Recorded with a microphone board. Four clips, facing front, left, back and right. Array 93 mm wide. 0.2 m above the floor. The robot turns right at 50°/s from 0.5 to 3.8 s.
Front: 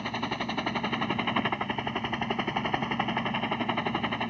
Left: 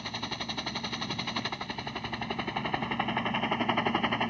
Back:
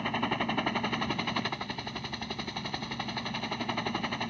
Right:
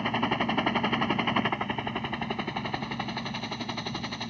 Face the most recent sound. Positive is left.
turn(degrees=65)